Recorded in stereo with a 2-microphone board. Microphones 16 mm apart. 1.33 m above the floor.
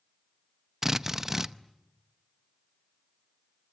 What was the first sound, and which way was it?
A drill, 25° right (ahead or behind).